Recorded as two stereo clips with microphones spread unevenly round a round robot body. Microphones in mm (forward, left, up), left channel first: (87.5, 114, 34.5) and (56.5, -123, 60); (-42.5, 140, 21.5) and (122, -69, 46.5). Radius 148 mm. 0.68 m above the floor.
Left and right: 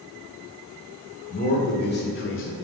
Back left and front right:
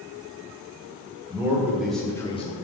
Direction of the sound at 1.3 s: 30° left.